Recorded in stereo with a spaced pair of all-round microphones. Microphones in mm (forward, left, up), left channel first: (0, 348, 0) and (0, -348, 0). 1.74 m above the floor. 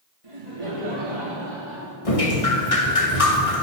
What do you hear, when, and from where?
0.2 s laughter: 50° right (ahead or behind), 3 m; by 1.9 s 35° right (ahead or behind), 5 m
2.0 s dripping: 50° left (ahead or behind), 1.7 m